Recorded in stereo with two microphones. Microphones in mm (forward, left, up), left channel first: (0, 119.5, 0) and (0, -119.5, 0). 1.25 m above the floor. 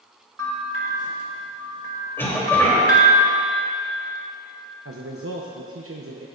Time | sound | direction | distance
0.4 | a bell | 70° right (ahead or behind) | 1.6 m
2.2 | a cough | 10° left (ahead or behind) | 3 m
4.8 | a man speaking | 65° right (ahead or behind) | 0.8 m